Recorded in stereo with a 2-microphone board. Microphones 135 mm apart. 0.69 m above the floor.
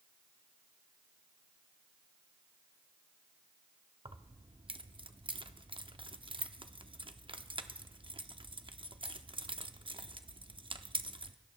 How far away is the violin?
No violin in this recording.